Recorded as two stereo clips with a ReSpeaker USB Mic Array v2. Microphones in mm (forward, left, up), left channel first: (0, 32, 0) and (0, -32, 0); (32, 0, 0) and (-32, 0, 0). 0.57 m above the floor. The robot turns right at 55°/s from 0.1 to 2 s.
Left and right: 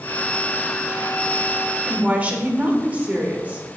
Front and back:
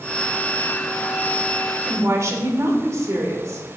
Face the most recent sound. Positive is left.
turn(degrees=-155)